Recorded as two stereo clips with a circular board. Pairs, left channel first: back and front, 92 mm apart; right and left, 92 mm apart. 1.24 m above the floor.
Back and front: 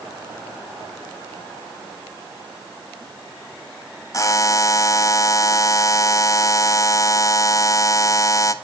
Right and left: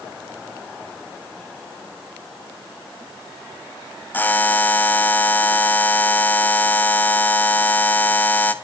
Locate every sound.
4.1 s a buzzer: 150° right, 0.7 m